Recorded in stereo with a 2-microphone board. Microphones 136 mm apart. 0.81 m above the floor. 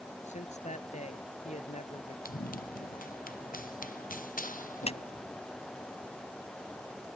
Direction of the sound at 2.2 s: 85° left.